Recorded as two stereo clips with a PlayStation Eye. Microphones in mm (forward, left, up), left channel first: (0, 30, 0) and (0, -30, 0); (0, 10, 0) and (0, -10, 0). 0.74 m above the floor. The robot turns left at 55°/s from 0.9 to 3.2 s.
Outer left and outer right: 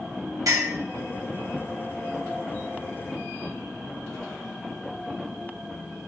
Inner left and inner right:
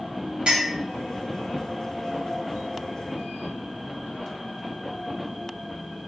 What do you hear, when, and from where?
0.5 s a clink: 70° right (ahead or behind), 0.9 m